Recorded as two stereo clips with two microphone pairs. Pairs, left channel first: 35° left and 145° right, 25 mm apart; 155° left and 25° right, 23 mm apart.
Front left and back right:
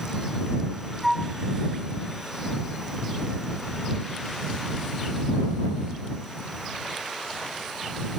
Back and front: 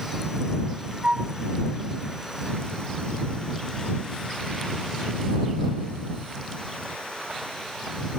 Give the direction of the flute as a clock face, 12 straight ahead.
2 o'clock.